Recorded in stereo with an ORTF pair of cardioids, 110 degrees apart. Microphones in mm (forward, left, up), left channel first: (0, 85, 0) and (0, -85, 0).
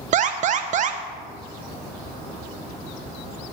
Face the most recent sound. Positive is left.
turn(degrees=-50)